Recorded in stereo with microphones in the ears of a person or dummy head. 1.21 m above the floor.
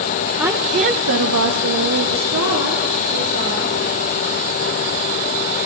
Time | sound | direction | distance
0.4 | a woman speaking | 5° right (ahead or behind) | 1.0 m